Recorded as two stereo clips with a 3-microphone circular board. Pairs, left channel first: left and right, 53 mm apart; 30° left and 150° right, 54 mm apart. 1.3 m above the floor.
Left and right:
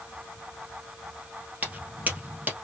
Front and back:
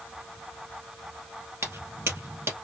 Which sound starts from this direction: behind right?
Footsteps, at 1.6 s.